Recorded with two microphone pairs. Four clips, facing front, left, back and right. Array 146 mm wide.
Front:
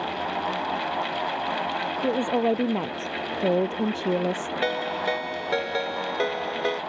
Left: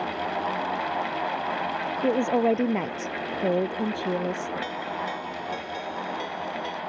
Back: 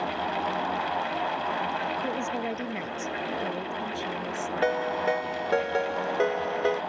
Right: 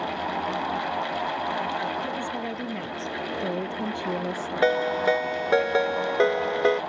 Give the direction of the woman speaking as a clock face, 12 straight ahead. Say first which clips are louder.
Left 8 dB, front 7 dB; 10 o'clock.